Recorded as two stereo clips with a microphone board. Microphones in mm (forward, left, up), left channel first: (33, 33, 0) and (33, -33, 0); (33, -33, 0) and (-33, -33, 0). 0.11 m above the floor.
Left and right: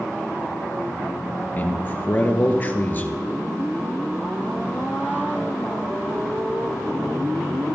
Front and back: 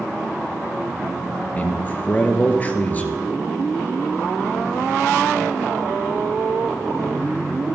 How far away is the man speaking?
About 1.6 m.